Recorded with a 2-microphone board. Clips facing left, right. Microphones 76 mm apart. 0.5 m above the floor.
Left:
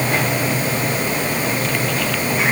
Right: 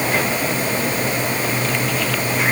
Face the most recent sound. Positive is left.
No sound to turn to.